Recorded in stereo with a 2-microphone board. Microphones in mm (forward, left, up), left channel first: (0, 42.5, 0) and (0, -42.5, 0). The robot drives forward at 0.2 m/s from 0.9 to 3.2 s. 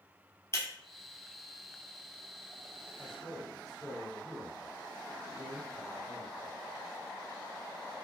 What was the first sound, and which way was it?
Breaking glass, 35° left (ahead or behind).